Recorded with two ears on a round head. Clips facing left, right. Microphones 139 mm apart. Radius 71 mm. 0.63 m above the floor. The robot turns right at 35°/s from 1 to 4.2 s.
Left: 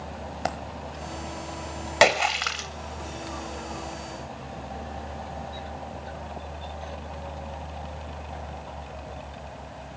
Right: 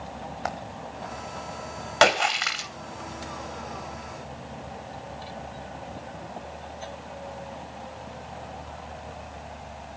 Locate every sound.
0.5 s a dropped coin: 35° left (ahead or behind), 1.2 m
2.0 s a splash: 15° left (ahead or behind), 2.5 m; by 2.7 s 10° right (ahead or behind), 2.5 m